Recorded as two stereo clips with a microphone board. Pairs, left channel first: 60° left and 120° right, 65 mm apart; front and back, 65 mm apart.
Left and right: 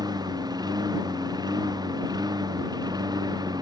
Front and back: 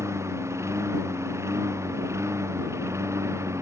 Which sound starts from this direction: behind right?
A lawn mower, at 0.0 s.